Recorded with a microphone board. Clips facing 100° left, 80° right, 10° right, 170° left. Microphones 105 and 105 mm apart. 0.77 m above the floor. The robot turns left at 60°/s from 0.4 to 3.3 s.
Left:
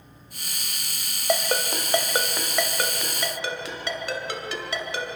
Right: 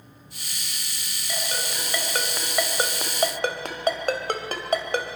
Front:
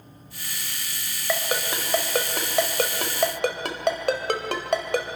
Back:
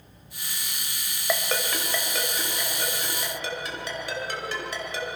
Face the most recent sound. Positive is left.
turn(degrees=-40)